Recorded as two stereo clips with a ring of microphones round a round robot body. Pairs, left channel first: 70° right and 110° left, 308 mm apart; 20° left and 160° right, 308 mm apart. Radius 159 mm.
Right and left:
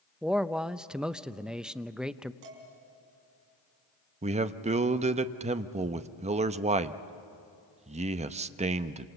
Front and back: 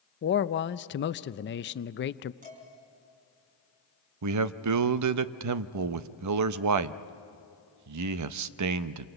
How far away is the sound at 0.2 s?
About 0.6 m.